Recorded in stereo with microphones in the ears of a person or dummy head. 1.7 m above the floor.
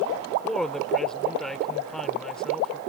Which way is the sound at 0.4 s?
Centre (ahead or behind).